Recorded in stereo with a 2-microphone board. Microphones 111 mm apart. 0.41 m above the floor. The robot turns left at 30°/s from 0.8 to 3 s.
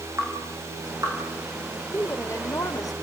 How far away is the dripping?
About 6 m.